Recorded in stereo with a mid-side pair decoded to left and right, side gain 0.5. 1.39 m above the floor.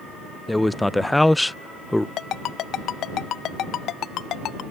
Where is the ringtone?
65° left.